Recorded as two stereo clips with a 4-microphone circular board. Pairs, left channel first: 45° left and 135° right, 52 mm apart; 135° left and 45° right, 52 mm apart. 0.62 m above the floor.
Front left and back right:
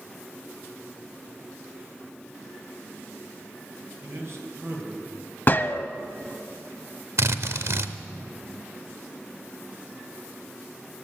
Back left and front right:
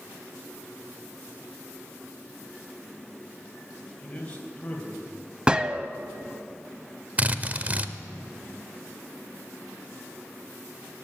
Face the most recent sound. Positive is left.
turn(degrees=-105)